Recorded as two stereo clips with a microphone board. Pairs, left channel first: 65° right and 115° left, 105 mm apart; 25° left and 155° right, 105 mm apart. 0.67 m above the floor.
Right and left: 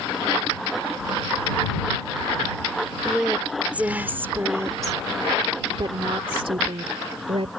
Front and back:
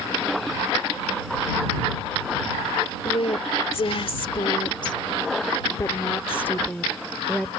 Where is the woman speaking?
25° left; by 7.5 s 110° left.